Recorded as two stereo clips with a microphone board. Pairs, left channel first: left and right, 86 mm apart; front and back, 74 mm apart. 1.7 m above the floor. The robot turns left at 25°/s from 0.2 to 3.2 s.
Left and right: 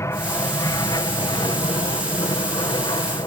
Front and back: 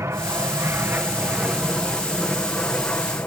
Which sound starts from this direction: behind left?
An aircraft, at 0.0 s.